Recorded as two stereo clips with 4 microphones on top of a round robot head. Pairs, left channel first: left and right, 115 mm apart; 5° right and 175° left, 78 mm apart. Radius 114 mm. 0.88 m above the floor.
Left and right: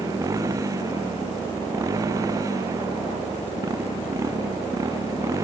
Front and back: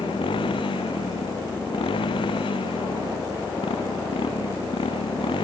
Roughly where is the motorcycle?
Ahead right.